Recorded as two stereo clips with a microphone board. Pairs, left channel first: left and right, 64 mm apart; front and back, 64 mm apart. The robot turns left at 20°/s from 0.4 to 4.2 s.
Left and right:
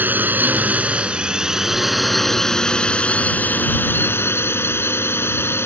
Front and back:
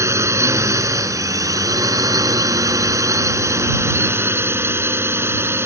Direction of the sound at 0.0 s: 145° right.